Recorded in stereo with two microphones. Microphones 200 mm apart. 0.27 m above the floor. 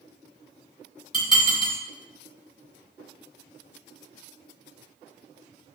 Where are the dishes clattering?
25° left (ahead or behind), 1.2 m.